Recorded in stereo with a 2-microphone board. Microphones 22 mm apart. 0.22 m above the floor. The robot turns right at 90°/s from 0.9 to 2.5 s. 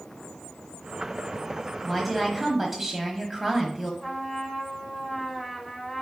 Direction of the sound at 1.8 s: 5° left (ahead or behind).